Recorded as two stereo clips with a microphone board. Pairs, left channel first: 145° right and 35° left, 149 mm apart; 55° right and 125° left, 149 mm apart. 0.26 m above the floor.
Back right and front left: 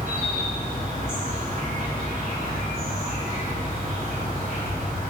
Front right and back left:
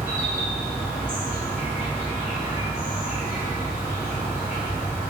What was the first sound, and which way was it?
An insect, 50° left.